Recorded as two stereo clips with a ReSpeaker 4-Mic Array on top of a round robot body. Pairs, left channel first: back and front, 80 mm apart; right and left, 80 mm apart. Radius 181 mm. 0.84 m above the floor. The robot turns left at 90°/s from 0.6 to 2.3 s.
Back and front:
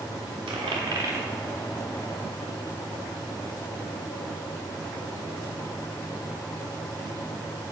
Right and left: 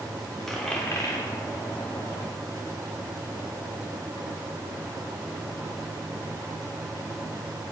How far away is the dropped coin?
About 0.6 m.